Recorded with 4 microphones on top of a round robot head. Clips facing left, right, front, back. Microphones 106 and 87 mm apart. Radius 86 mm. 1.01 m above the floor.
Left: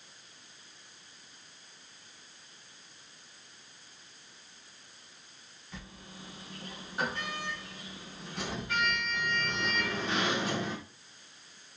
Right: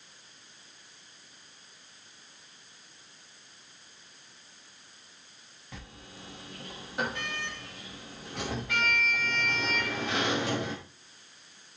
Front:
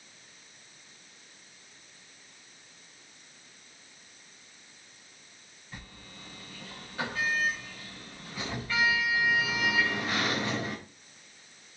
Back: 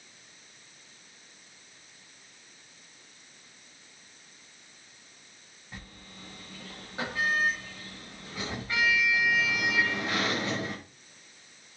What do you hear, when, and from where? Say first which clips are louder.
5.7 s a sliding door: even, back 1 dB; 105° right, 6 m